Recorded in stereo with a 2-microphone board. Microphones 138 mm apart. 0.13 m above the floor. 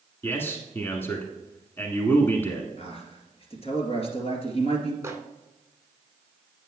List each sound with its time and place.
0.2 s a man speaking: 15° left (ahead or behind), 1.4 m
2.8 s a man speaking: 45° left (ahead or behind), 2.5 m
5.0 s a microwave: 20° right (ahead or behind), 0.9 m